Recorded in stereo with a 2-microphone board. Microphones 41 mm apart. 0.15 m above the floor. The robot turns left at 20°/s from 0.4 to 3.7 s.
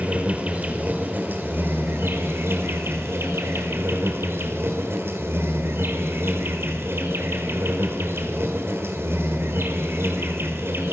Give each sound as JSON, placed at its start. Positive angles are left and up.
{"t": 0.0, "sound": "an insect", "azimuth_deg": -40, "distance_m": 1.8}